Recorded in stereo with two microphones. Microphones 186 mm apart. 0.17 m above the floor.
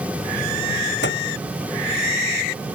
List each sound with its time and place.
1.0 s a microwave: 75° left (ahead or behind)